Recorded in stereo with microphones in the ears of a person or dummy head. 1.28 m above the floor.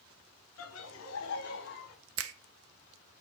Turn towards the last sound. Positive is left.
turn(degrees=-85)